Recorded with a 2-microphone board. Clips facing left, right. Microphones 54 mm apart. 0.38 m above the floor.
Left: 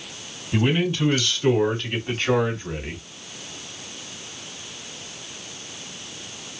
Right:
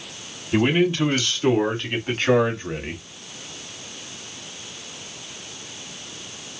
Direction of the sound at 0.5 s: 30° right (ahead or behind).